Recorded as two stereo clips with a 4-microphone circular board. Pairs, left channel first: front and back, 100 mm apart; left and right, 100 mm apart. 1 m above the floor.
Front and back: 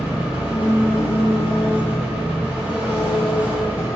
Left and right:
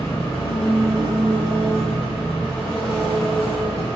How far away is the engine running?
About 2.5 m.